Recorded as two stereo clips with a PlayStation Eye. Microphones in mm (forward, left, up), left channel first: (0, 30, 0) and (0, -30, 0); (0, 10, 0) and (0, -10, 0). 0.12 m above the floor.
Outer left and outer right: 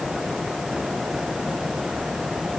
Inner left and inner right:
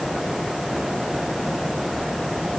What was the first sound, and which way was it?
Only background noise.